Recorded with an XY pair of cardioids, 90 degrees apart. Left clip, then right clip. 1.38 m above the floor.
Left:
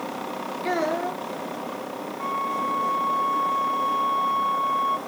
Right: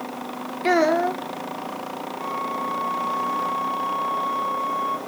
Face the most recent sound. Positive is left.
turn(degrees=35)